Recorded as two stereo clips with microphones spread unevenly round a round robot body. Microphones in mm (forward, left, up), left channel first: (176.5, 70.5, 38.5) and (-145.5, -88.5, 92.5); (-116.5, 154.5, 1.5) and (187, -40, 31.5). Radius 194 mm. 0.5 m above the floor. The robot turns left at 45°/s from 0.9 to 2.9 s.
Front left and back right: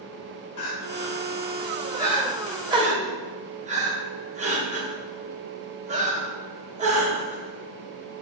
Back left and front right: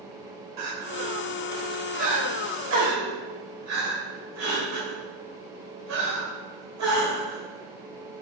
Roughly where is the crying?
Ahead.